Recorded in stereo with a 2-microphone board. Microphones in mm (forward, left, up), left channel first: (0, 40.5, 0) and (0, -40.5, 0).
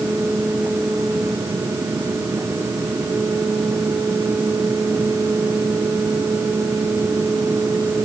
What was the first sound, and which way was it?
Only background noise.